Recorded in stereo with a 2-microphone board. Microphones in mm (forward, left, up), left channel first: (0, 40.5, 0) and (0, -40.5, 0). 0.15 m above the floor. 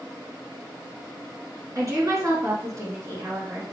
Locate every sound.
1.8 s a woman speaking: 45° right (ahead or behind), 2.5 m; by 3.7 s 35° right (ahead or behind), 2.5 m